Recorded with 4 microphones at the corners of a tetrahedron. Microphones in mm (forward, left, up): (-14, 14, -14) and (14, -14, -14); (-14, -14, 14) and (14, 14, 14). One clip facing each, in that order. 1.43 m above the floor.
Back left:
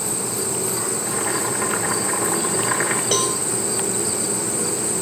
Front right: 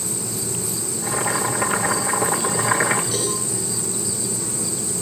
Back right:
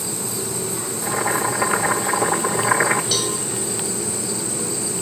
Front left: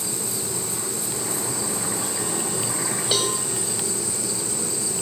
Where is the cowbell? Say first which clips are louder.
Back left 4 dB, even; 110° left, 6 m.